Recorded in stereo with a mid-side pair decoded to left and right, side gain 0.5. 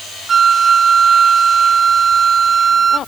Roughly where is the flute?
Ahead right.